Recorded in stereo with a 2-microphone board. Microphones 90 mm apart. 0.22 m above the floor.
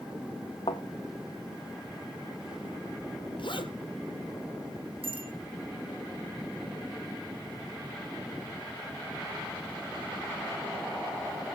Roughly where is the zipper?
Left.